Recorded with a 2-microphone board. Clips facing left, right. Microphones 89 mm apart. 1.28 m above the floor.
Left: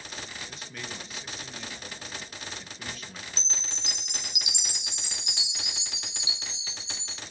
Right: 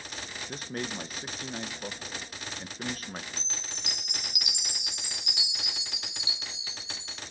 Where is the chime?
25° left (ahead or behind), 1.0 m.